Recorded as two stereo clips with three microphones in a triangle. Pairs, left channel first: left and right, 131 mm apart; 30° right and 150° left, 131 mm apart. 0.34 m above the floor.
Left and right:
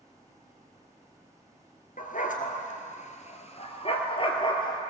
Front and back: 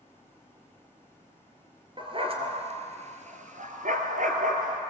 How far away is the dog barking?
About 1.9 m.